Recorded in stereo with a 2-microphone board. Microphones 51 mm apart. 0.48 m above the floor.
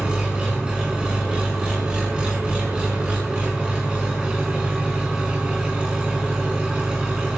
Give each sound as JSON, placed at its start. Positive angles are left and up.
{"t": 0.0, "sound": "an engine running", "side_deg": -20, "distance_m": 4.5}